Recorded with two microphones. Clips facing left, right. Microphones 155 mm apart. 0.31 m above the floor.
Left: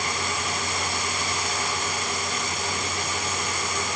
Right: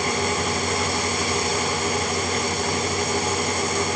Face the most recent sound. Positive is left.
No sound to turn to.